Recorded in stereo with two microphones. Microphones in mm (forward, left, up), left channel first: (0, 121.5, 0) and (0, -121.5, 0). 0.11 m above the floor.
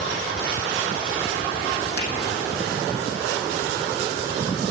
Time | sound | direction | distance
2.0 | a finger snap | 75° right (ahead or behind) | 4.5 m